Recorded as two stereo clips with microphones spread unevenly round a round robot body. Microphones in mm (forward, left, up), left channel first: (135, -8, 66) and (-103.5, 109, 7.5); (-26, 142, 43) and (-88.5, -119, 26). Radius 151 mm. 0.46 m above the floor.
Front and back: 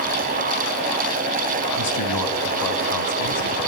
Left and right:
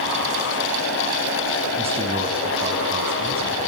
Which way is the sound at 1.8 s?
35° right.